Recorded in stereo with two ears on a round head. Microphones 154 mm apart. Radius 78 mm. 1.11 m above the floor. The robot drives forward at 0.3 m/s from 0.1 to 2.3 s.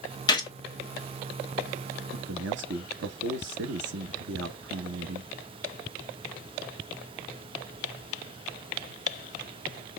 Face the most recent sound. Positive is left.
turn(degrees=-70)  # may be behind; listen again after turning